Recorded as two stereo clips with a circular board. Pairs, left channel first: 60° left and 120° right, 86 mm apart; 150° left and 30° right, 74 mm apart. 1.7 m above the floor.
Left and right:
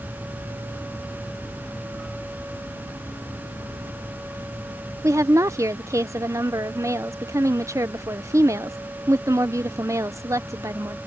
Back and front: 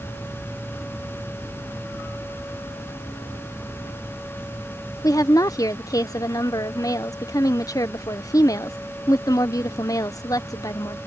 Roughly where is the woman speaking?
Behind.